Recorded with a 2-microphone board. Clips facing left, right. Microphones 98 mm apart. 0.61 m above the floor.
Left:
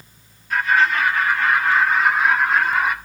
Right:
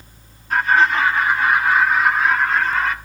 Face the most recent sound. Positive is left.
turn(degrees=10)  # may be behind; listen again after turning